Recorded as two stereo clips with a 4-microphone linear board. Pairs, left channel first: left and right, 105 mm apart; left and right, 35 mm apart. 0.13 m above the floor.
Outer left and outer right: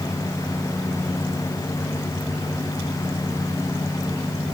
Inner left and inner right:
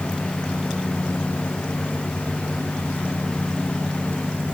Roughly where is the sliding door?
No sliding door in this recording.